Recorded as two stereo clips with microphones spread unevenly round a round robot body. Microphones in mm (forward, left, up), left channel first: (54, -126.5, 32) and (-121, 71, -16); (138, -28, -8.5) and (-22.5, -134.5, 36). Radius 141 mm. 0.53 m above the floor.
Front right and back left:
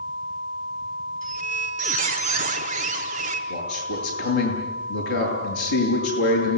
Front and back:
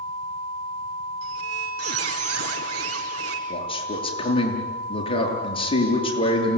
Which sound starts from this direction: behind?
A squeak, at 1.2 s.